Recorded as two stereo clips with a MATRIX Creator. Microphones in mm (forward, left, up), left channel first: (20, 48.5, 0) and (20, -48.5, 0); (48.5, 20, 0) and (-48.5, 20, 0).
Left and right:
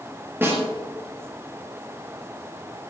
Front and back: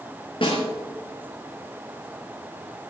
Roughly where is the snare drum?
Ahead right.